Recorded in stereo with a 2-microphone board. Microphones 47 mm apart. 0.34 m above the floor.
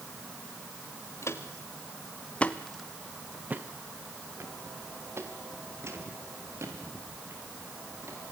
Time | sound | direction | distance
1.2 | footsteps | 70° left (ahead or behind) | 2.5 m